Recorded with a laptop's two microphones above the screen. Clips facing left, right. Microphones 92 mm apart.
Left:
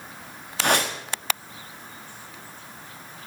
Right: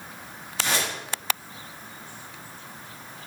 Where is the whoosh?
60° left (ahead or behind), 1.4 m.